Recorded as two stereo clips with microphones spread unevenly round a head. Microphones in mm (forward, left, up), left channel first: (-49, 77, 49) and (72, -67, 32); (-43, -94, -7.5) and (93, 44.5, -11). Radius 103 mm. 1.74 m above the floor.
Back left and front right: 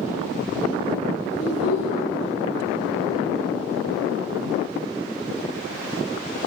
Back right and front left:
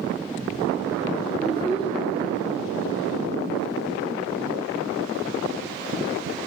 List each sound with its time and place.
1.3 s a child speaking: 135° left, 6 m